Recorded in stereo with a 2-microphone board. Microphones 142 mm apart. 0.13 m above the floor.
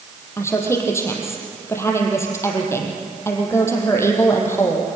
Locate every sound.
0.4 s a woman speaking: 20° left (ahead or behind), 4.5 m